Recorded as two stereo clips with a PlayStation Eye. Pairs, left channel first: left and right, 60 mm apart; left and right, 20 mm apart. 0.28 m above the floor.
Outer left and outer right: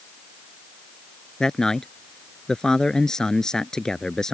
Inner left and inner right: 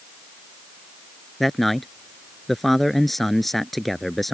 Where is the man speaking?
10° left (ahead or behind).